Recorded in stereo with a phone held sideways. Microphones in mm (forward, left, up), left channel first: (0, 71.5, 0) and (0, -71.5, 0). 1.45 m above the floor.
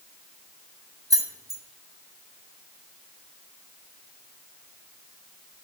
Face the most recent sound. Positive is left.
turn(degrees=-25)  # may be behind; listen again after turning